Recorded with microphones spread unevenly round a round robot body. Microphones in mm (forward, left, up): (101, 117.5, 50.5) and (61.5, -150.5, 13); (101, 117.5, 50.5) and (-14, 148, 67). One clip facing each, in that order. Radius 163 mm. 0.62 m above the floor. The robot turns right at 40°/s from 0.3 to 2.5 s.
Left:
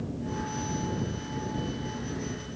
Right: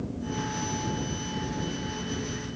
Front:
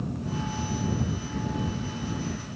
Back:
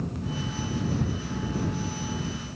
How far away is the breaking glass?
I don't hear breaking glass.